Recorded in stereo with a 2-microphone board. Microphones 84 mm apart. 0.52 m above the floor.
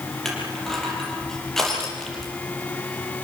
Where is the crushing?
5° left (ahead or behind), 8.5 m.